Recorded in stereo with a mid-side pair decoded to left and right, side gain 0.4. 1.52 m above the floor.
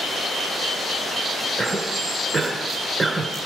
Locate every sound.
1.6 s a cough: 35° right, 4.5 m